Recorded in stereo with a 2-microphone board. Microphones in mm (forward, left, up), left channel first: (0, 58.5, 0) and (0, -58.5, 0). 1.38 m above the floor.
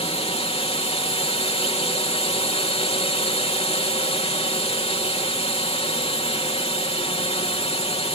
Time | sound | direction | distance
0.0 | a drone | 60° left (ahead or behind) | ?